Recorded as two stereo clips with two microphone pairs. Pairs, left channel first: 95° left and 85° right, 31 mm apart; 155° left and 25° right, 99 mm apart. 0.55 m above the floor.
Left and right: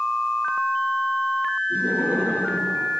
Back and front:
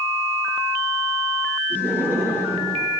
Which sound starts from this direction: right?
Laughter, at 1.7 s.